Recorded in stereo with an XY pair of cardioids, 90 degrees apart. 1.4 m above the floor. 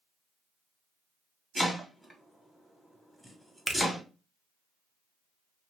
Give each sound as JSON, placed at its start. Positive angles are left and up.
{"t": 1.6, "sound": "chopping", "azimuth_deg": 0, "distance_m": 1.4}
{"t": 3.7, "sound": "a finger snap", "azimuth_deg": 5, "distance_m": 0.7}